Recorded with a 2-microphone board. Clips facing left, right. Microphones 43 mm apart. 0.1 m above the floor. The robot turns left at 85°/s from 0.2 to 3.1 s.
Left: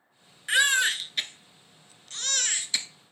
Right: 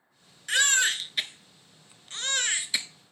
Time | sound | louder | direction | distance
0.5 | a baby crying | left 2 dB | 20° left (ahead or behind) | 0.5 m